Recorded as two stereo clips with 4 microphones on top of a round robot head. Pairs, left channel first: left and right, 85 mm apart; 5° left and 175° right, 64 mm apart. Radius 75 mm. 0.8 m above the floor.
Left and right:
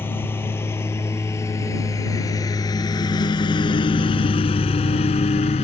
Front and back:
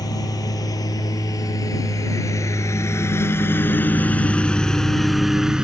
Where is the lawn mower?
25° left; by 5.6 s 105° left.